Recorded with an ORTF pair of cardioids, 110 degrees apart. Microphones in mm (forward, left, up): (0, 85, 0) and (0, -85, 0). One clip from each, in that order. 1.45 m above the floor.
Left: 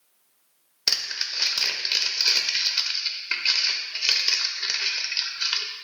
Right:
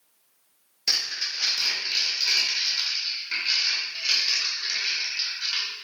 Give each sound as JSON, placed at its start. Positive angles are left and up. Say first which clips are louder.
{"t": 0.9, "sound": "crumpling", "louder": "even", "azimuth_deg": 60, "distance_m": 0.6}